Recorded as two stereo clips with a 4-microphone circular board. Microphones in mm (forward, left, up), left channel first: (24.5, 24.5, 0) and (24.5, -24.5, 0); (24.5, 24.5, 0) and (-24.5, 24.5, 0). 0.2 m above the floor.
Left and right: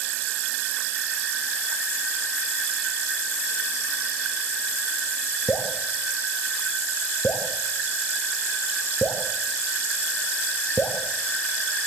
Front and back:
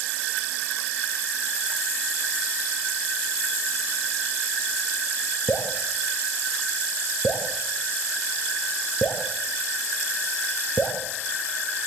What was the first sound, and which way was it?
Dripping, 40° left.